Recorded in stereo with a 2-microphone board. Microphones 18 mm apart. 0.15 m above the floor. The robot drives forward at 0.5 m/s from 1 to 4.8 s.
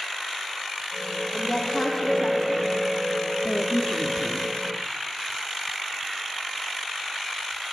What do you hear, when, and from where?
1.3 s a woman speaking: 10° left (ahead or behind), 5.5 m; by 2.8 s 5° left (ahead or behind), 6 m
3.4 s a woman speaking: 65° left (ahead or behind), 2.5 m; by 4.7 s 60° left (ahead or behind), 2.5 m